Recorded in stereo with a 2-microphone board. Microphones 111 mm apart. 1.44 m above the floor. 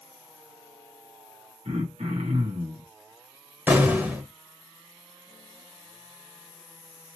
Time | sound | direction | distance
1.6 | throat clearing | 75° right (ahead or behind) | 1.7 m
3.7 | an explosion | 15° right (ahead or behind) | 1.3 m